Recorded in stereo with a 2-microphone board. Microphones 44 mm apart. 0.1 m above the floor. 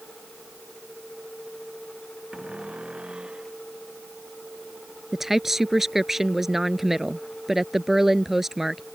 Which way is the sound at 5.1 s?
5° right (ahead or behind).